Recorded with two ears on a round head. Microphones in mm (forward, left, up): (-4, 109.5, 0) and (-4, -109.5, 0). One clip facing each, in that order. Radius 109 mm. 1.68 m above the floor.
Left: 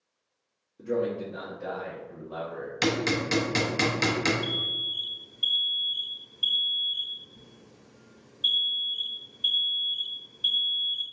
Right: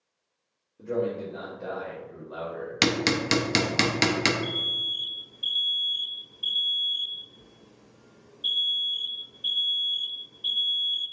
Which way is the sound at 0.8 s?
20° left (ahead or behind).